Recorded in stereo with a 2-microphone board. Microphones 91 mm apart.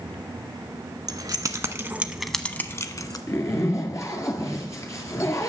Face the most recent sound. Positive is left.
turn(degrees=40)  # may be behind; listen again after turning